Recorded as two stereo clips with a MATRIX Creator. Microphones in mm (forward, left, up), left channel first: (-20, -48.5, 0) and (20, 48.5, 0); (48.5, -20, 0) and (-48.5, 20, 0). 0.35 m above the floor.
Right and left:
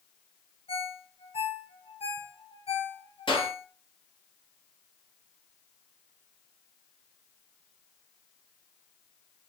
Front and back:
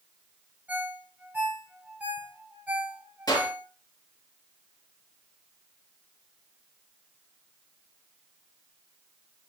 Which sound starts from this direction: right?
A clap, at 3.3 s.